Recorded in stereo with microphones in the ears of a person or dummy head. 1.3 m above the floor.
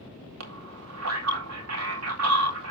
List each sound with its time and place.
0.4 s a man speaking: 85° right, 3.5 m